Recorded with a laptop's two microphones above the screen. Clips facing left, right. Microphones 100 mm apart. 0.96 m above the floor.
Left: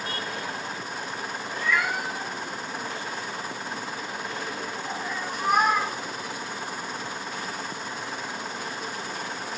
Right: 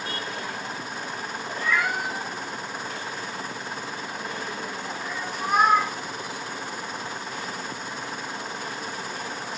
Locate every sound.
1.5 s a cat meowing: 25° right (ahead or behind), 1.3 m; by 5.9 s 65° left (ahead or behind), 1.7 m